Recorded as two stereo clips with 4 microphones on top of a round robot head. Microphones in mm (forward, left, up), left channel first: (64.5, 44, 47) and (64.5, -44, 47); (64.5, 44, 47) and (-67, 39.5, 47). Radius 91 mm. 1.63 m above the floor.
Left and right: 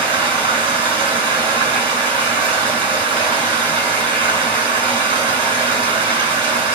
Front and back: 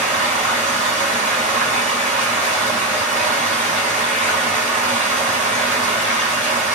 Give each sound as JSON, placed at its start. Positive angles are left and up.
{"t": 0.0, "sound": "running water", "azimuth_deg": -90, "distance_m": 2.0}